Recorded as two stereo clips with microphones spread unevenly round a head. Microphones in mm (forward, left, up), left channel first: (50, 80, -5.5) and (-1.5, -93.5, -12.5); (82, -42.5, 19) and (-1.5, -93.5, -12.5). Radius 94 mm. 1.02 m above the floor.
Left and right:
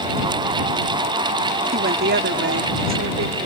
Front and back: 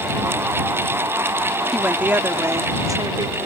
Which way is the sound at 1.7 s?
65° right.